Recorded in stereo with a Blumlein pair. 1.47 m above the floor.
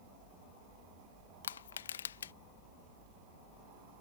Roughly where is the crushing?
Ahead left.